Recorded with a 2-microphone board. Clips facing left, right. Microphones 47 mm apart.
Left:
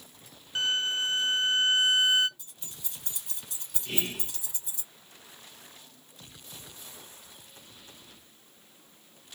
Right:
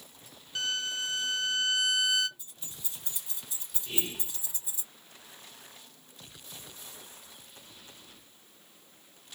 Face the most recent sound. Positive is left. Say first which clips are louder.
# left 3 dB
turn(degrees=80)